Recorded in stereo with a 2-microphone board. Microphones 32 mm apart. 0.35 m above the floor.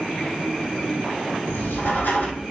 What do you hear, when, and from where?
1.5 s writing: 75° left (ahead or behind), 2 m